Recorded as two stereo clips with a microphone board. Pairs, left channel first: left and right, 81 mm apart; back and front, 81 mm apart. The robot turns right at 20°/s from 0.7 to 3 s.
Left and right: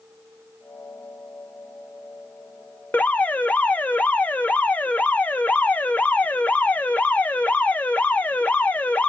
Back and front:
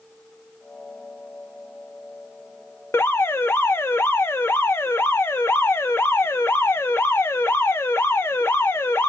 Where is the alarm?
145° left, 0.6 m; by 9.1 s 150° left, 0.6 m.